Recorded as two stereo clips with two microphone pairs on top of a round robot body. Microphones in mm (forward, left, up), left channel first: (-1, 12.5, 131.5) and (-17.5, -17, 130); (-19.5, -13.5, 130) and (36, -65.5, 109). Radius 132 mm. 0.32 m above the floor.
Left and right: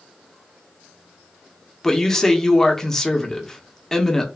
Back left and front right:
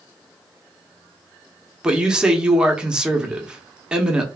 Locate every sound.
1.8 s a man speaking: 10° right, 0.9 m